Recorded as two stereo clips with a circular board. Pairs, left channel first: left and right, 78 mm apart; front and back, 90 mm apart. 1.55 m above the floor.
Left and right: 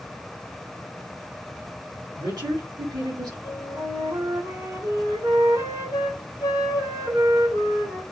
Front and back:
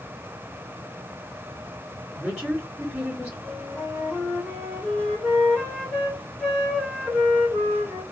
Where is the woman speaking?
100° right, 2.5 m.